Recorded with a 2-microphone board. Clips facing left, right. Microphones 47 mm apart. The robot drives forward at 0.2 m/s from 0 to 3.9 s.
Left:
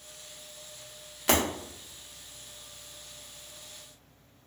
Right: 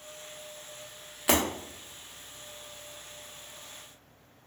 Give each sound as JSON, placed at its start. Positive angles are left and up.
{"t": 1.3, "sound": "breaking glass", "side_deg": -5, "distance_m": 0.8}